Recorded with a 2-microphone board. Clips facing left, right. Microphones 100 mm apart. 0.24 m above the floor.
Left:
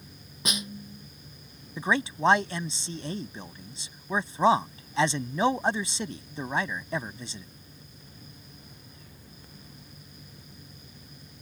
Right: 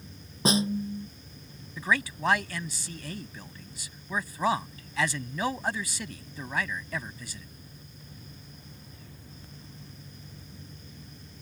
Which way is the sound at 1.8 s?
25° left (ahead or behind).